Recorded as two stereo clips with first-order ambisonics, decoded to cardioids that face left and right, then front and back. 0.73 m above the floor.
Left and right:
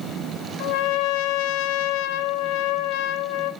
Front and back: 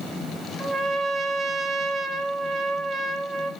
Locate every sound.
0.6 s a trumpet: 105° left, 0.8 m